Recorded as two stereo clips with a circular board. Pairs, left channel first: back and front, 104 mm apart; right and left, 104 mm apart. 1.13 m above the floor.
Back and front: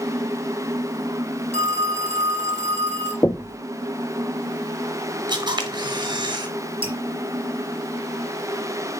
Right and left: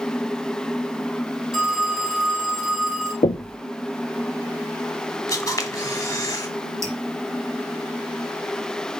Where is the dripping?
30° left, 2.5 m.